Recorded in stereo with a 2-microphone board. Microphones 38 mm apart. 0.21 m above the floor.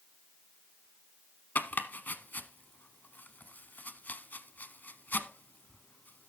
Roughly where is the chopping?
Left.